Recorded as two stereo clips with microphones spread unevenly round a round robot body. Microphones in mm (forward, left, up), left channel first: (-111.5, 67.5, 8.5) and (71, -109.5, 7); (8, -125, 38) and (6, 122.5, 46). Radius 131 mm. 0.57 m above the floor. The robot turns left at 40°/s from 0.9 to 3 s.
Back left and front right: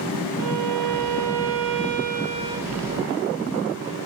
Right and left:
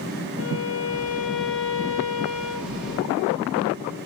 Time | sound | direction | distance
0.4 | a violin | 55° right | 1.3 m